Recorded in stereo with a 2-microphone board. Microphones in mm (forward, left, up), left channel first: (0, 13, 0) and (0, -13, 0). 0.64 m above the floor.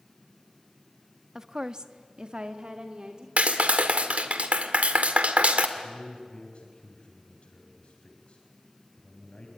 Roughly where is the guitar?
I don't hear a guitar.